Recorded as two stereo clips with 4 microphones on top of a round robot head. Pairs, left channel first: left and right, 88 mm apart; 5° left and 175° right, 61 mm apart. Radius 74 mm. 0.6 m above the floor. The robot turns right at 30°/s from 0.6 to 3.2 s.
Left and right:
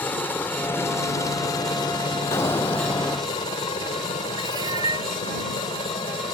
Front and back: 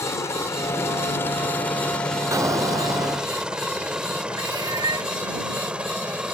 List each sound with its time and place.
0.0 s a helicopter: 25° left; by 6.3 s 115° left
2.3 s an explosion: 150° left; by 3.3 s straight behind
4.4 s a cat meowing: 140° right